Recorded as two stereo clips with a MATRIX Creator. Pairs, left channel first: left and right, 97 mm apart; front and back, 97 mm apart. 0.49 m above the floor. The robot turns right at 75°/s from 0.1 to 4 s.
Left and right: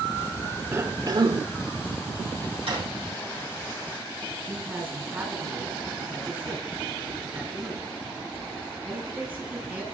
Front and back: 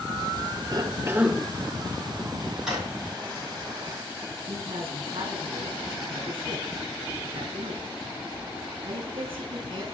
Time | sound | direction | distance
0.7 | a cough | 150° right | 1.0 m
2.7 | a drawer | 95° right | 6.5 m
4.5 | a man speaking | 155° right | 5 m